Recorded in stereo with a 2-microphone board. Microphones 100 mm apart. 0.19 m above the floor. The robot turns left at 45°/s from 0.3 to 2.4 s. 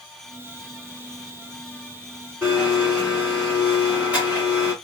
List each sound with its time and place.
2.4 s a blender: 15° right (ahead or behind), 2.5 m